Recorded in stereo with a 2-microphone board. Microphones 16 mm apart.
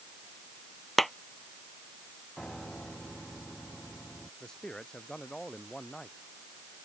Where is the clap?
15° left (ahead or behind).